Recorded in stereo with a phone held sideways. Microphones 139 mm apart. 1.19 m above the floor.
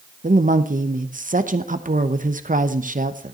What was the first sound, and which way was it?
A woman speaking, 75° right (ahead or behind).